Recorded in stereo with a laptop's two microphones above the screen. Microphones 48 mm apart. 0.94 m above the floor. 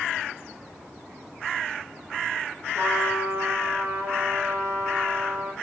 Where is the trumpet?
55° right (ahead or behind), 4 m.